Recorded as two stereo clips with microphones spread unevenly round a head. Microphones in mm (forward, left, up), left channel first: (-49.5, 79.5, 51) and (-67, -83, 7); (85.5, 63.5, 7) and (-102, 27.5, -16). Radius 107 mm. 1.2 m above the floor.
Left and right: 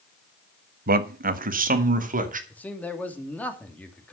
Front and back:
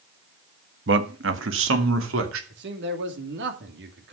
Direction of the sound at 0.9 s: 125° right.